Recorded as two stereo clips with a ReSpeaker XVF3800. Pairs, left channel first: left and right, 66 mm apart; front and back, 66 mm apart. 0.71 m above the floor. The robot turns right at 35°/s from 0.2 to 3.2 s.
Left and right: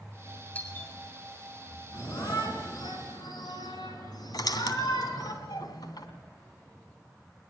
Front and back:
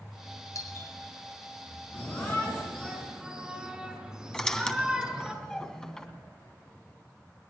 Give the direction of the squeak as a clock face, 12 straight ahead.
9 o'clock.